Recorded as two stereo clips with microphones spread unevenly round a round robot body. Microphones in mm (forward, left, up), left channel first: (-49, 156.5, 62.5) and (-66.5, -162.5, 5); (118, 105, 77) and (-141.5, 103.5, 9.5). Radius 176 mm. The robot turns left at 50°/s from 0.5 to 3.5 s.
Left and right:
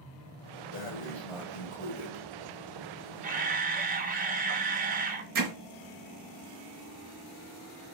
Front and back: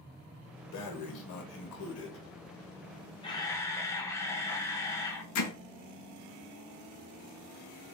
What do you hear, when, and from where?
0.7 s breathing: 20° left, 1.0 m; by 2.2 s 55° right, 1.0 m
3.2 s a camera shutter: 80° right, 0.7 m; by 5.2 s 95° right, 0.7 m
5.3 s hammering: 40° right, 0.6 m